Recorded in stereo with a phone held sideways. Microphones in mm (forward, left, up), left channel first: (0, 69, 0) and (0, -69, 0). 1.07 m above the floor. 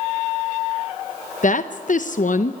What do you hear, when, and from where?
1.4 s a woman speaking: 65° left (ahead or behind), 0.8 m